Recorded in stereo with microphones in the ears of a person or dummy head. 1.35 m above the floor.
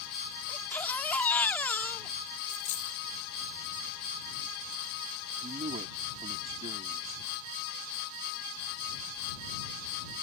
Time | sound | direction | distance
0.5 | a baby crying | 10° left (ahead or behind) | ?
2.5 | a dropped coin | 70° left (ahead or behind) | ?
5.4 | a man speaking | 35° right (ahead or behind) | ?